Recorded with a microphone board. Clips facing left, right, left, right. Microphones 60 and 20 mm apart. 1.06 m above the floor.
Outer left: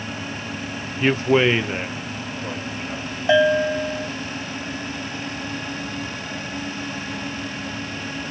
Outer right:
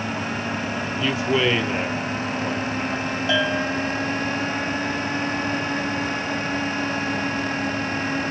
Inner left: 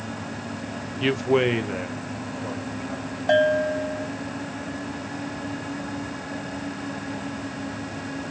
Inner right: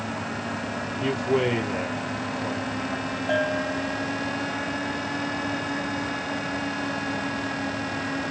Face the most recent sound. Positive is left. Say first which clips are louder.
# outer left 7 dB, inner left 6 dB
turn(degrees=30)  # may be behind; listen again after turning